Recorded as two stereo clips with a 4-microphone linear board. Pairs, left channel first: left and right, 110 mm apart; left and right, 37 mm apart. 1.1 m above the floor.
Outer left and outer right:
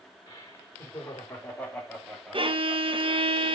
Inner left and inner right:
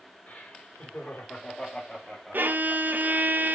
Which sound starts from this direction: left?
Laughter, at 0.3 s.